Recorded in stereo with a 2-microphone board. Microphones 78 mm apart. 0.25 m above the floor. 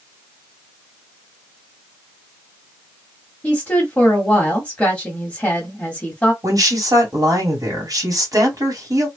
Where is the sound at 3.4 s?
15° left (ahead or behind), 1.3 m.